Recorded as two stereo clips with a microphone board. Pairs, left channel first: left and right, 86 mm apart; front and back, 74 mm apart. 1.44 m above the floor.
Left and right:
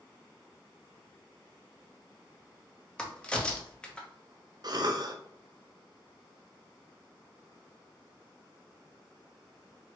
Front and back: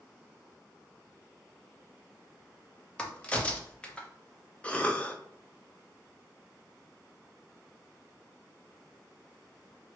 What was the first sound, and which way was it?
A crack, 35° left.